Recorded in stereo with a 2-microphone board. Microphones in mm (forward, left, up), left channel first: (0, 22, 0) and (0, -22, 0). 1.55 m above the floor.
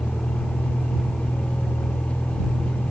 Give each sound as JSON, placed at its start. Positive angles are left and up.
{"t": 0.0, "sound": "a vehicle", "side_deg": 55}